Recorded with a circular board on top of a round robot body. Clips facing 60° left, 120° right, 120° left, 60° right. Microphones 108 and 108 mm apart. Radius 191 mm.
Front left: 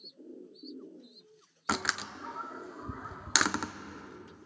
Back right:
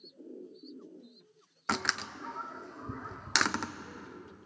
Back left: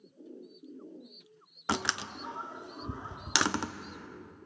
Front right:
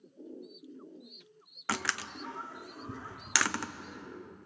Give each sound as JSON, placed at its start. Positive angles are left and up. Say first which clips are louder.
{"t": 1.7, "sound": "a door slam", "louder": "even, back left 2 dB", "azimuth_deg": 140, "distance_m": 0.9}